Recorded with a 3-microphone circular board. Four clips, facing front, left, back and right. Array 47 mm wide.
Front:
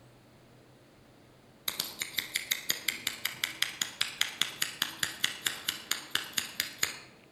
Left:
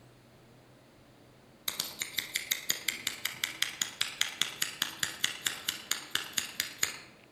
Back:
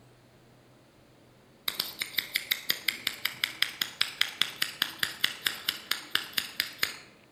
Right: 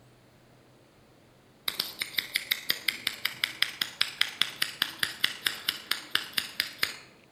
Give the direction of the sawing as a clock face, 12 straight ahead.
No sawing in this recording.